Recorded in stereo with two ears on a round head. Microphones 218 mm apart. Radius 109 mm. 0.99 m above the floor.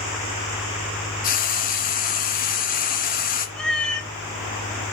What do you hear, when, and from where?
1.2 s frying: 35° left (ahead or behind), 1.3 m
3.6 s a cat meowing: 5° left (ahead or behind), 1.0 m